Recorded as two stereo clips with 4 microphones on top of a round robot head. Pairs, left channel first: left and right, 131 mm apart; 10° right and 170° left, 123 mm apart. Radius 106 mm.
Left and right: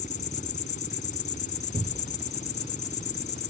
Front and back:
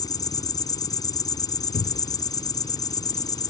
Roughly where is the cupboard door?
Ahead right.